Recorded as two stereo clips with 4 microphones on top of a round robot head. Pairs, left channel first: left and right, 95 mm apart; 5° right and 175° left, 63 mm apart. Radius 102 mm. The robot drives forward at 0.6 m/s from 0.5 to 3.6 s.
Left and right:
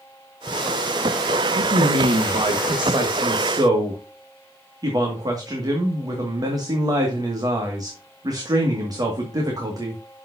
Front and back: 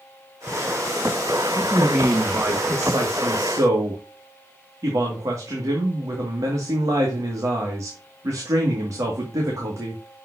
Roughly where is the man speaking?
Right.